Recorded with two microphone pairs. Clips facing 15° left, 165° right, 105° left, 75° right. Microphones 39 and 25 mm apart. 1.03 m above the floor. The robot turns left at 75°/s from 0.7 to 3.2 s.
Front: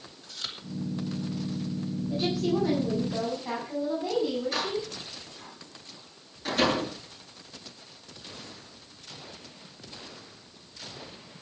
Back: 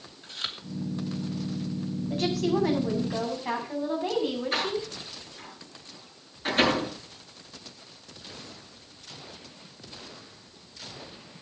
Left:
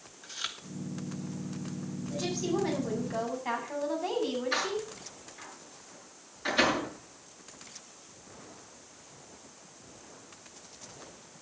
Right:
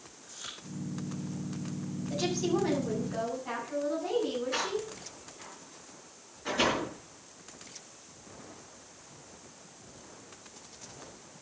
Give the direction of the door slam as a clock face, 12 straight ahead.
7 o'clock.